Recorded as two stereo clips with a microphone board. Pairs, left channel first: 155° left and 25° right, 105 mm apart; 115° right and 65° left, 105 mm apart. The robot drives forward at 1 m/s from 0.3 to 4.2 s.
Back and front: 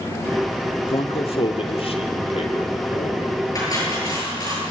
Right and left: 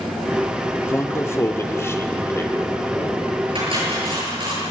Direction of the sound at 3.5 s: 100° left.